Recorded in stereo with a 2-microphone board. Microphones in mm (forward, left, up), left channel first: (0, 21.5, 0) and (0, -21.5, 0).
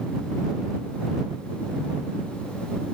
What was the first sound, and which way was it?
Only background noise.